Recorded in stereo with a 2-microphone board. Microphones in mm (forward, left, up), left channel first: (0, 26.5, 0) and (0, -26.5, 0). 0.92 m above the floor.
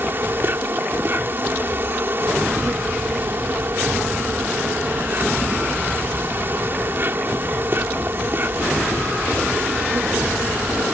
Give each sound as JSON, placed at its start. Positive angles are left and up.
{"t": 0.0, "sound": "an insect", "side_deg": -45}